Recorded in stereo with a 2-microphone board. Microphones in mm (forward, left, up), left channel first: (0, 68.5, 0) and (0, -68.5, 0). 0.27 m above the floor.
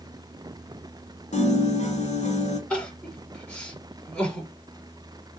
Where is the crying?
10° left (ahead or behind), 5 m.